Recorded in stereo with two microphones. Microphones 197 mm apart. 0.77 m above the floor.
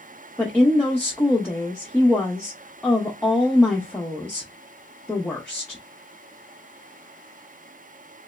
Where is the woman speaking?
5° left (ahead or behind), 0.8 m.